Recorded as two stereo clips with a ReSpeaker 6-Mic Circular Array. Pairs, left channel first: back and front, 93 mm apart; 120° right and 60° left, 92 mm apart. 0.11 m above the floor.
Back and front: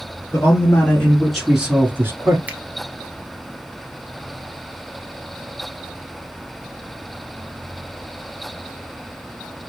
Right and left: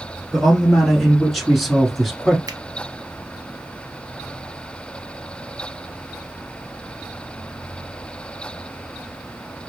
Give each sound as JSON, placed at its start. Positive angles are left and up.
{"t": 0.3, "sound": "a man speaking", "azimuth_deg": 150, "distance_m": 1.4}
{"t": 2.5, "sound": "a finger snap", "azimuth_deg": 65, "distance_m": 1.1}